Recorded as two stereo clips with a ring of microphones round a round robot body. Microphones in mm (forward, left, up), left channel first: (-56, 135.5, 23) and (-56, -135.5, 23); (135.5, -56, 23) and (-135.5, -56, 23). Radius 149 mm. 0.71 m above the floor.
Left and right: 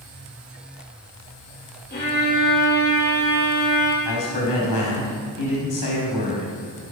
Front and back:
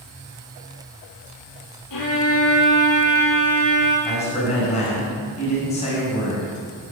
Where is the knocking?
No knocking in this recording.